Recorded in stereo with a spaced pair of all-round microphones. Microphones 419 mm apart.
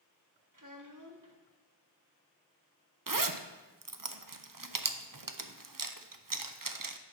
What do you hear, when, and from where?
0.5 s a child speaking: 45° right (ahead or behind), 1.2 m
3.1 s a zipper: 50° right (ahead or behind), 0.7 m